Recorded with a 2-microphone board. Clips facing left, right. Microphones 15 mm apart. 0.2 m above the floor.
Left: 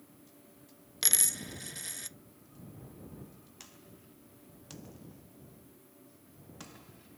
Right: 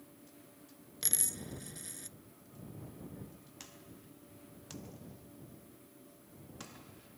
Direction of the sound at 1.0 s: 35° left (ahead or behind).